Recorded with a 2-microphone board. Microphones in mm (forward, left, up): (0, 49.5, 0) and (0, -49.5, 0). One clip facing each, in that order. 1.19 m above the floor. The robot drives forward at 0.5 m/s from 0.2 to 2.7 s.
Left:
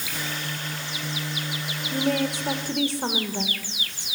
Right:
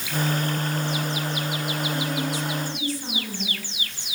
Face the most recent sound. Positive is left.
turn(degrees=65)  # may be behind; listen again after turning